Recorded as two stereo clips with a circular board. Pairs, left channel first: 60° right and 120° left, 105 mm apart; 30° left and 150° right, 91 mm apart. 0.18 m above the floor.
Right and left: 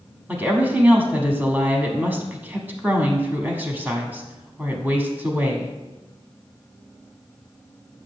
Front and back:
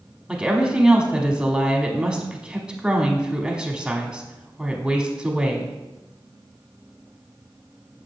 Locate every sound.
0.3 s a woman speaking: 145° left, 1.0 m